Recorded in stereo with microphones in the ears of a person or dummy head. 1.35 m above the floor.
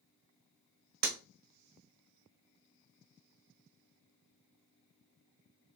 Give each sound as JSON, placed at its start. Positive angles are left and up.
{"t": 1.0, "sound": "breaking glass", "side_deg": -60, "distance_m": 1.2}